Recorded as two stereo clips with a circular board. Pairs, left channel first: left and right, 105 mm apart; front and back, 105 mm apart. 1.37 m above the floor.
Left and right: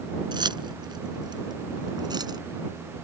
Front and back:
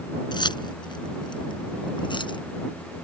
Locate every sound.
0.3 s keys jangling: 45° right; by 2.4 s 40° right